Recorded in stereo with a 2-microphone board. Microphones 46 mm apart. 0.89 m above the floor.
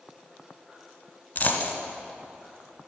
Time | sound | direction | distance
1.4 | a dropped coin | 35° left (ahead or behind) | 1.2 m